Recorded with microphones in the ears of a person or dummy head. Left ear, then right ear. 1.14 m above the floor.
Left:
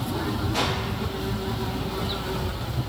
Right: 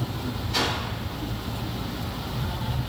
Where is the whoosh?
55° right (ahead or behind), 1.4 m.